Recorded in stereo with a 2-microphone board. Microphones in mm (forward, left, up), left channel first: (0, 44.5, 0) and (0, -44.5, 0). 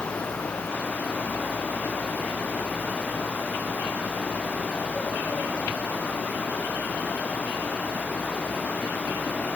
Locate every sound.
Only background noise.